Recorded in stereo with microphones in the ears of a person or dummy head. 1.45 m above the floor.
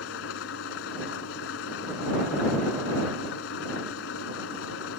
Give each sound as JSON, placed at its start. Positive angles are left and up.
{"t": 0.0, "sound": "an engine running", "side_deg": 80}